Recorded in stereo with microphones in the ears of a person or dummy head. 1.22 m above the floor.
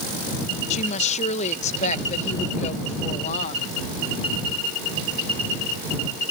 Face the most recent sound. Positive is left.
turn(degrees=40)  # may be behind; listen again after turning